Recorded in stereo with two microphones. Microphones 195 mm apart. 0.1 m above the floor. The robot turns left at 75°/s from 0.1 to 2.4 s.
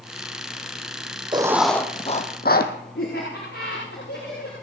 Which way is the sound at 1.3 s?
155° right.